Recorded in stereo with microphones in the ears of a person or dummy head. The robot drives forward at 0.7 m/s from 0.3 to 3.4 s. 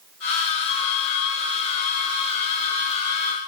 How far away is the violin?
About 7.5 m.